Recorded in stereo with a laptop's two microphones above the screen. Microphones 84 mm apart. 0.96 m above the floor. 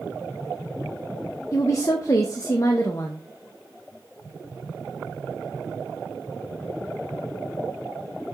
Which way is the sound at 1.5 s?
40° left (ahead or behind).